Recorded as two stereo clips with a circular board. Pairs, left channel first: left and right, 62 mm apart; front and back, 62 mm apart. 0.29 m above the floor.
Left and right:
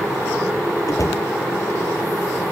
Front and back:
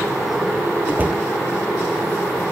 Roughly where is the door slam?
Behind left.